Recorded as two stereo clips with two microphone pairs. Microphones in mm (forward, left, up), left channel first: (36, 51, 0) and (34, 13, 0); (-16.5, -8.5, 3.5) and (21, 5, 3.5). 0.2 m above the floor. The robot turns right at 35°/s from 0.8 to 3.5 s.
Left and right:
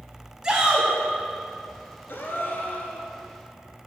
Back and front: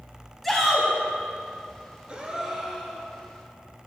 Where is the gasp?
80° left, 1.0 m; by 3.1 s 115° left, 1.0 m.